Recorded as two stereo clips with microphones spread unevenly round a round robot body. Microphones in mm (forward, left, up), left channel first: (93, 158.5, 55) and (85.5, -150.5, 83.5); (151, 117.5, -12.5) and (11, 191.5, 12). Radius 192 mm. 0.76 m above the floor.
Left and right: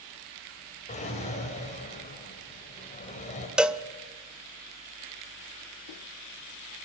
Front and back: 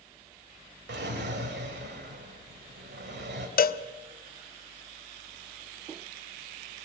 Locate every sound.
0.9 s a drawer: 160° left, 2 m
3.6 s a cowbell: 5° right, 0.9 m